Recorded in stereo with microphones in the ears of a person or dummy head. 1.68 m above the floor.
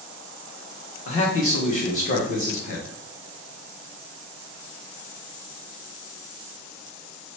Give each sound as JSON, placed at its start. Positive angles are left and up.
{"t": 1.1, "sound": "a man speaking", "side_deg": 50, "distance_m": 0.8}